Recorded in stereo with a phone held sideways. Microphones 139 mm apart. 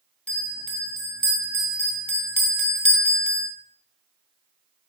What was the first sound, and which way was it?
A bell, 40° left (ahead or behind).